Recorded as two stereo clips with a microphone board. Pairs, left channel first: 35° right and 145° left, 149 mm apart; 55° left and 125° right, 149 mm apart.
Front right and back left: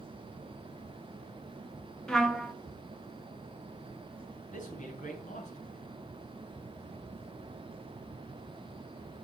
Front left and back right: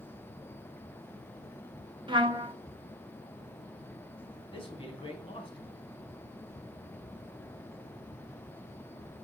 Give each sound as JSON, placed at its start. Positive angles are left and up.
{"t": 2.1, "sound": "a trumpet", "azimuth_deg": -115, "distance_m": 0.8}
{"t": 4.5, "sound": "a man speaking", "azimuth_deg": 0, "distance_m": 3.5}